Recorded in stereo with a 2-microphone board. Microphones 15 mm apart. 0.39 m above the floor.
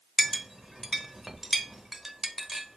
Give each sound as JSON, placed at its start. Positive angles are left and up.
{"t": 0.2, "sound": "a clink", "side_deg": -30, "distance_m": 0.9}